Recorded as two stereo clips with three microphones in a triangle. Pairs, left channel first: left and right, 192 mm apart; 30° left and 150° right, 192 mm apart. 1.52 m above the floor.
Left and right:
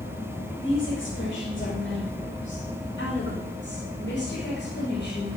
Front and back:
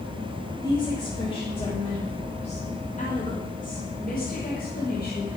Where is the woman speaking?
100° left, 6 m; by 5.3 s 60° left, 5.5 m.